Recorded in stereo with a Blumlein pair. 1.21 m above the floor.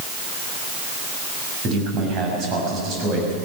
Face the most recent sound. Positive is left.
turn(degrees=-30)